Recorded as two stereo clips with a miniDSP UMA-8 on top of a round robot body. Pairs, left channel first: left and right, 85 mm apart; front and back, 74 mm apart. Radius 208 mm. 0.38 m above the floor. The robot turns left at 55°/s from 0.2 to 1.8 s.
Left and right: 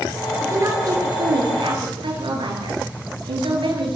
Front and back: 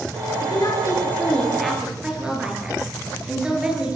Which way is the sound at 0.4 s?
25° right.